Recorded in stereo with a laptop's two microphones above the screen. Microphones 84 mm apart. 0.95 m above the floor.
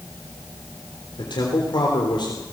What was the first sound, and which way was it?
A man speaking, 65° left (ahead or behind).